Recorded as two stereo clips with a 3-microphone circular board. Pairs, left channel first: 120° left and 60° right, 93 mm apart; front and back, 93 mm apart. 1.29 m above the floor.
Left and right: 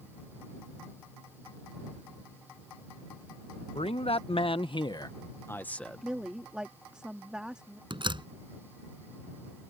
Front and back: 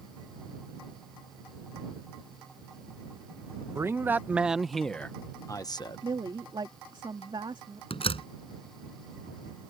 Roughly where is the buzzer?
No buzzer in this recording.